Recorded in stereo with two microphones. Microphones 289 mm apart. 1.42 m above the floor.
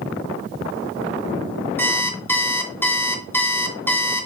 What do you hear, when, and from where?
1.8 s an alarm clock: 10° left (ahead or behind), 0.5 m